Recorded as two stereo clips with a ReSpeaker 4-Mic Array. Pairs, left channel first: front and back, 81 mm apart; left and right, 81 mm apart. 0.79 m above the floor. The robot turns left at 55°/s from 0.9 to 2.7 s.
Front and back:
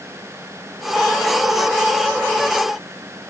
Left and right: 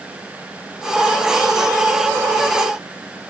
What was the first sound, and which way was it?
Only background noise.